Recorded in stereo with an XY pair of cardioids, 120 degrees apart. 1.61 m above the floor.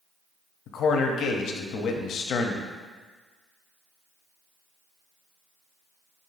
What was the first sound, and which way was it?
A man speaking, 60° left.